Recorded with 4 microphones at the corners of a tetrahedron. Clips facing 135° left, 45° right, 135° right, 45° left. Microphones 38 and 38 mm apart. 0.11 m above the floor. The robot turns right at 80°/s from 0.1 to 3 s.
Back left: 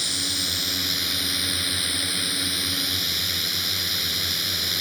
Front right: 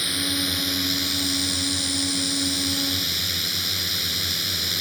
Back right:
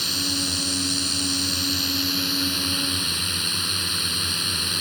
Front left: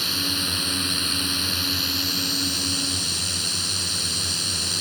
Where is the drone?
20° right; by 4.8 s 145° right.